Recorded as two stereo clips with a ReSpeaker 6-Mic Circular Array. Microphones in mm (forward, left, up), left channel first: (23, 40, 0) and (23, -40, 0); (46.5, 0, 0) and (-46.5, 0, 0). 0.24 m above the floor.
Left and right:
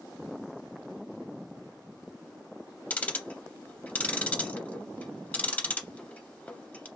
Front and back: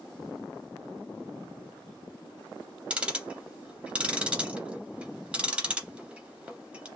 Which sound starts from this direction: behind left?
Ticking, at 2.9 s.